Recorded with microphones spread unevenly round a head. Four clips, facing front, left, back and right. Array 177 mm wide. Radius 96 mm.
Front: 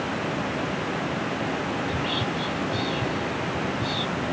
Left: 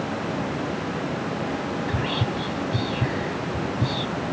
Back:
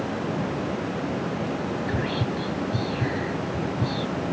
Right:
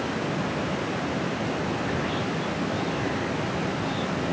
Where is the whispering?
115° left.